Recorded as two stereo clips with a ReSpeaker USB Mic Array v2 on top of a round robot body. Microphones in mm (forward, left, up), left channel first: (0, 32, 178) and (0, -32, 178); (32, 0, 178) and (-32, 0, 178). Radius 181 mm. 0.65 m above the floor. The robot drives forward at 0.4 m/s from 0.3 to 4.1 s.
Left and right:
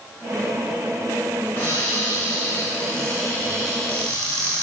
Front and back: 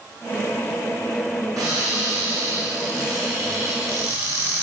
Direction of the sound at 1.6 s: 150° left.